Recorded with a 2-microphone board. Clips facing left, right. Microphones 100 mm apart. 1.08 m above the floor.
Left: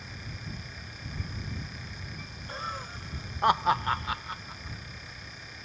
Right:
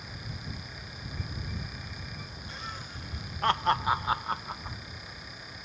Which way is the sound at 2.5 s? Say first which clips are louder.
Left 7 dB; 40° left (ahead or behind).